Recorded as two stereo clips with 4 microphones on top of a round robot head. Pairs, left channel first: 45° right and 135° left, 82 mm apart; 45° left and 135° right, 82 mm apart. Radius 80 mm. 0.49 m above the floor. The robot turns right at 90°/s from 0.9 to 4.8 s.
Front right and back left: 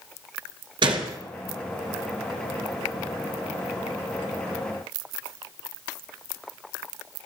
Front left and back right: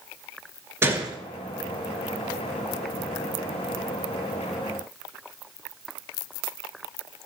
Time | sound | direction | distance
0.8 | a gunshot | 160° left | 2 m